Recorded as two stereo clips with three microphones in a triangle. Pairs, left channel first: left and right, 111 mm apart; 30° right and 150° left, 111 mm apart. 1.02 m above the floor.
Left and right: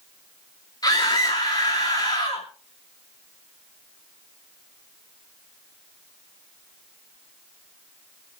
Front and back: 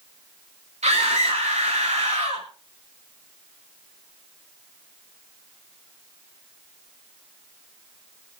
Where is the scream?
145° left, 2.5 m.